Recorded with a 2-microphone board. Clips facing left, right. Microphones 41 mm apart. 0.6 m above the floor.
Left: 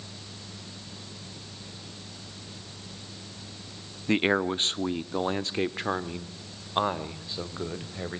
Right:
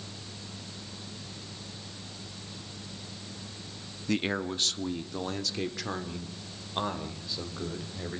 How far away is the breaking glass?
I don't hear breaking glass.